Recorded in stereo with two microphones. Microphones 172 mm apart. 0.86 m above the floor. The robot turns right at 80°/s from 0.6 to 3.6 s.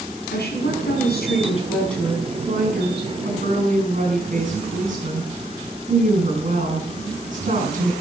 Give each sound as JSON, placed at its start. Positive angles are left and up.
{"t": 0.3, "sound": "a woman speaking", "azimuth_deg": 70, "distance_m": 7.5}